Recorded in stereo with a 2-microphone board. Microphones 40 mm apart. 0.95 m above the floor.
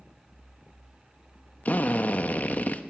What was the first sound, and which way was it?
A drill, 45° left (ahead or behind).